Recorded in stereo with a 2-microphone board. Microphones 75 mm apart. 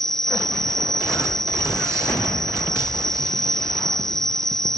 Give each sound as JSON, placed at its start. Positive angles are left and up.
{"t": 0.0, "sound": "an insect", "side_deg": 5}